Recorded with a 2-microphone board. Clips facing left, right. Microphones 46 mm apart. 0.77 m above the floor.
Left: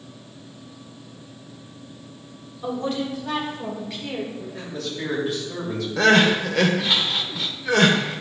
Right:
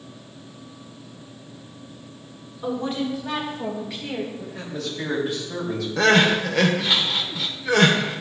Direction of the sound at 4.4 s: Centre (ahead or behind).